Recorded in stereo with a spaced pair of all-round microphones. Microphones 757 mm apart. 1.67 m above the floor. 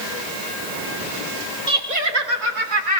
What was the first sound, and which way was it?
Laughter, 65° right (ahead or behind).